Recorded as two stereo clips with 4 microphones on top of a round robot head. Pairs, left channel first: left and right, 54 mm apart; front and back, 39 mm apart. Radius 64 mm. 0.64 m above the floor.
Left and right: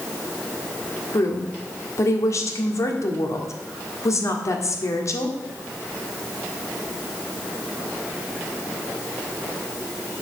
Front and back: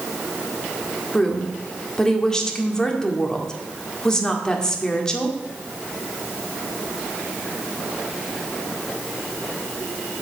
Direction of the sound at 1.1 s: 75° left.